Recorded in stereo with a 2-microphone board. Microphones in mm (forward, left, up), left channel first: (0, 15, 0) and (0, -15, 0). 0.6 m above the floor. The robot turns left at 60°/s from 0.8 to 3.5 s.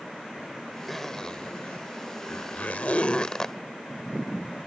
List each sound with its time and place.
0.9 s a zipper: centre (ahead or behind); by 3.5 s 25° left (ahead or behind)